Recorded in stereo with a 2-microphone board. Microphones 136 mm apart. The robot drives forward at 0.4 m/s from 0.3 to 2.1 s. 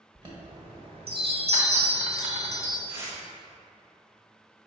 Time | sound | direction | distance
0.1 | a chime | 35° right (ahead or behind) | 1.0 m
2.9 | tearing paper | 20° right (ahead or behind) | 1.2 m